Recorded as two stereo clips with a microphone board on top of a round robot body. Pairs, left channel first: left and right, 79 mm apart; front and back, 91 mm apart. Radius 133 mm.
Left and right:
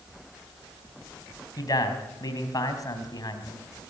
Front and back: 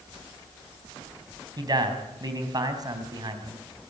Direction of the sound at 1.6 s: 135° left.